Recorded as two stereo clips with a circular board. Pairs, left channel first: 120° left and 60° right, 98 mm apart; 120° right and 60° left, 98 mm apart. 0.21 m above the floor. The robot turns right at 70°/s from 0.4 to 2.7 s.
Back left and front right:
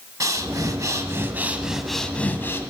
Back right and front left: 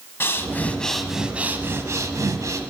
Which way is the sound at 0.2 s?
75° right.